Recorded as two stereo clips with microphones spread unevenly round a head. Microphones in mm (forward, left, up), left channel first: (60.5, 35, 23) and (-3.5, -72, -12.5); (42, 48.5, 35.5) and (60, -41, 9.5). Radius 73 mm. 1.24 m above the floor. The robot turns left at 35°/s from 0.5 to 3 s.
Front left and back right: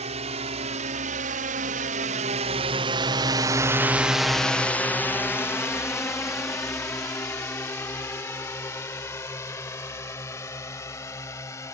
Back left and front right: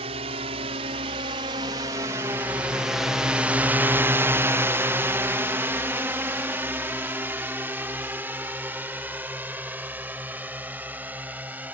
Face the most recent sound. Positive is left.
turn(degrees=-5)